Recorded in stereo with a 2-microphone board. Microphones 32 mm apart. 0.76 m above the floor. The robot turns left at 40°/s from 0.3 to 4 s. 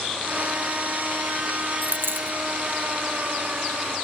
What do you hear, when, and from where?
1.8 s a dropped coin: 65° right (ahead or behind); by 2.4 s 85° right